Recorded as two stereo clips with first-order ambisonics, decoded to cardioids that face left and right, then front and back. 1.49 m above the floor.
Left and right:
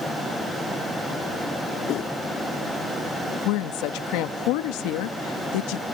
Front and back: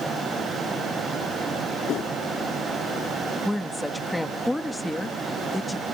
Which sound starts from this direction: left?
A woman speaking, at 3.5 s.